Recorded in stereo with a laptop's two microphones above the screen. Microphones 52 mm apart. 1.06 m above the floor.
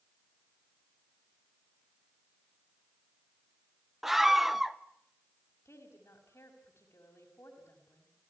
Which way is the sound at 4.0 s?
5° right (ahead or behind).